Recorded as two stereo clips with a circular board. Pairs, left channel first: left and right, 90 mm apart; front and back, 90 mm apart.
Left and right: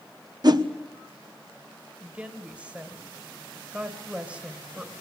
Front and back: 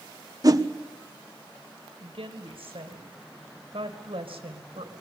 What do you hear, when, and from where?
0.4 s a whoosh: 130° right, 1.1 m
2.0 s a woman speaking: 165° right, 2 m